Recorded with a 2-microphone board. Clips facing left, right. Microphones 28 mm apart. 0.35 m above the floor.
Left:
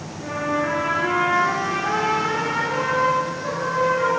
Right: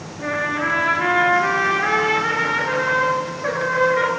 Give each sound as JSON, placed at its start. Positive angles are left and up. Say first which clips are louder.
{"t": 0.2, "sound": "a trumpet", "louder": "right 2 dB", "side_deg": -65, "distance_m": 1.7}